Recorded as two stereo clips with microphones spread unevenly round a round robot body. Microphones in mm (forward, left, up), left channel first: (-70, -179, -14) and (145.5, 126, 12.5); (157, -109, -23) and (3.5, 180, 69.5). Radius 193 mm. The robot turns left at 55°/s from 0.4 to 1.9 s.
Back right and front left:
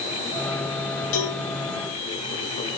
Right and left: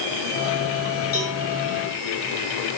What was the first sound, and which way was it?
A cowbell, 125° right.